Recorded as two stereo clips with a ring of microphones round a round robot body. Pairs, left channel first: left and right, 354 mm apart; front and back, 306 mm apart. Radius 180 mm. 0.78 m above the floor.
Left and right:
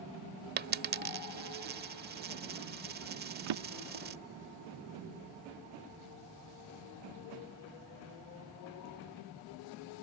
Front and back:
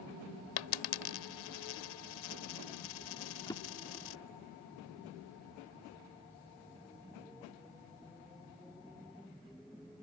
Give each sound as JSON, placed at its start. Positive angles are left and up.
{"t": 0.6, "sound": "a dropped coin", "azimuth_deg": -25}
{"t": 3.5, "sound": "a drawer", "azimuth_deg": -80}